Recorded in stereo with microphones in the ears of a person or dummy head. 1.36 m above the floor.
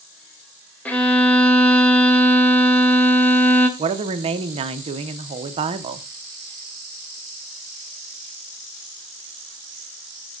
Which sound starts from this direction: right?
A woman speaking, at 3.8 s.